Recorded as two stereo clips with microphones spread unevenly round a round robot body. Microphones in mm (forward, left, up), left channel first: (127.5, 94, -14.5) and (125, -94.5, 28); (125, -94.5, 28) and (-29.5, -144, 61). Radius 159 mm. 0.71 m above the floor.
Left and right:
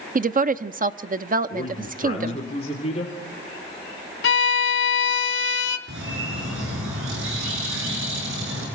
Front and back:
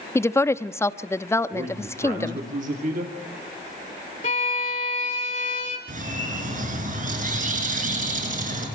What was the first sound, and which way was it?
A woman speaking, 45° right.